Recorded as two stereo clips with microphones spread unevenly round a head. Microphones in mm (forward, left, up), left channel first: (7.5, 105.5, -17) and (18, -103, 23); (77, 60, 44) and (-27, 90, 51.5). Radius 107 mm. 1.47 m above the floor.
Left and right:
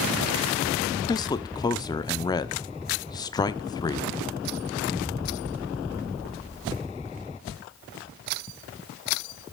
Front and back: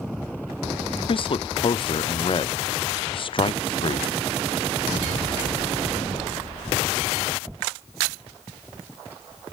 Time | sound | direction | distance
1.1 | a man speaking | 25° left | 0.6 m